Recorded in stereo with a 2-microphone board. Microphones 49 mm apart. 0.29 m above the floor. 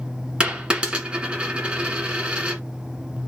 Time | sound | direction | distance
0.4 | a dropped coin | 20° right (ahead or behind) | 1.7 m